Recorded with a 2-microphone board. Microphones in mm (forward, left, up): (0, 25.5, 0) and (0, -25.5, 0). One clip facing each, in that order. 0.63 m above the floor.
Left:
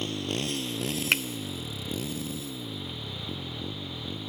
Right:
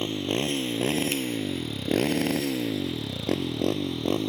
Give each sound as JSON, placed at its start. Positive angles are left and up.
{"t": 0.0, "sound": "a motorcycle", "side_deg": -25}
{"t": 1.1, "sound": "a finger snap", "side_deg": 75}